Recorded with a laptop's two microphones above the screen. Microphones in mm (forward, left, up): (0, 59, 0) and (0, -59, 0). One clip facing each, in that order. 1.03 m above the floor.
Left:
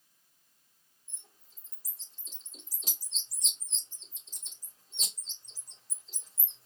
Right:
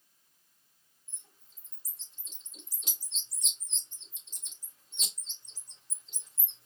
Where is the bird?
35° left (ahead or behind), 3 m.